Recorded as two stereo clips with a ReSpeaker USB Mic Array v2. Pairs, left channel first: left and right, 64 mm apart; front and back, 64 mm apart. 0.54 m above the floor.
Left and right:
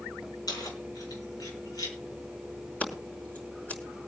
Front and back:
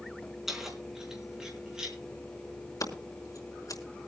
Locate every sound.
0.5 s keys jangling: 100° left, 4 m; by 2.0 s 105° left, 5 m
2.8 s scissors: 25° left, 4.5 m